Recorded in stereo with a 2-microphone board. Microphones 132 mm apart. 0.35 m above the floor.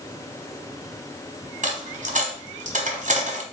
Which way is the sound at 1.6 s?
70° right (ahead or behind).